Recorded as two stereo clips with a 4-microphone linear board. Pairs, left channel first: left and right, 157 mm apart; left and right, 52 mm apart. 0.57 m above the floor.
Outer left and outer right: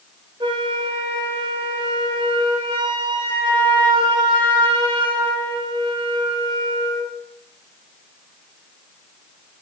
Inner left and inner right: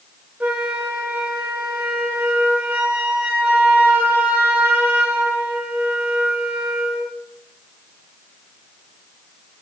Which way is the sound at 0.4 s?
30° right (ahead or behind).